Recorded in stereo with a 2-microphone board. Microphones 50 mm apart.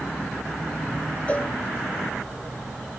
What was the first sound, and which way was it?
A cowbell, 25° left (ahead or behind).